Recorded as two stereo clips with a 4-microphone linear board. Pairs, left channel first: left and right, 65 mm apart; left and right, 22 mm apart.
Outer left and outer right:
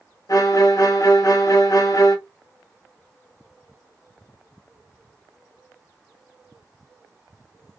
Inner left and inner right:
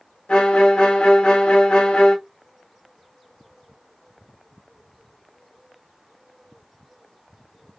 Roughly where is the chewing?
I don't hear chewing.